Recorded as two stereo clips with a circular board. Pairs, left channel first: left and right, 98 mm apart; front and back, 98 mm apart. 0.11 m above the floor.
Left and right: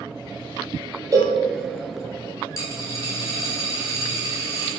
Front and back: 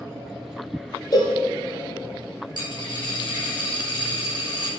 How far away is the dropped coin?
About 4 m.